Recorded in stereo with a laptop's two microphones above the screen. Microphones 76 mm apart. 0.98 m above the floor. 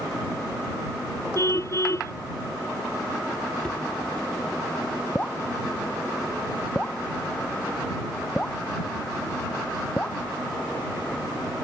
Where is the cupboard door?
10° left (ahead or behind).